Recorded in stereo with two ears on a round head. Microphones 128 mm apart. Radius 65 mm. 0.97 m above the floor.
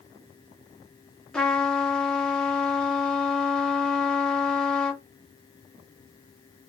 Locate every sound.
1.3 s a trumpet: 5° left (ahead or behind), 0.9 m